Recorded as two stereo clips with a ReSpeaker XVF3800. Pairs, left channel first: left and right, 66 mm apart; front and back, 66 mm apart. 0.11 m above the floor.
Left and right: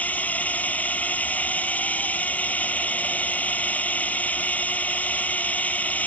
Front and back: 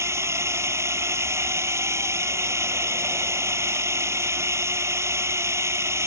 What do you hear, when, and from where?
0.0 s a drone: 150° left